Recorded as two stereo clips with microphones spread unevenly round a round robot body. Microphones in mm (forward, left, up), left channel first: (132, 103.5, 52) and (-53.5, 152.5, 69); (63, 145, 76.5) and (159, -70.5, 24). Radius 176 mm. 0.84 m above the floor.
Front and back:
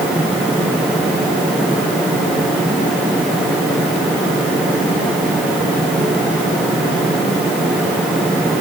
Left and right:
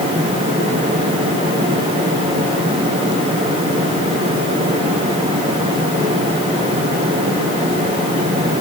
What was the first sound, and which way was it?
Only background noise.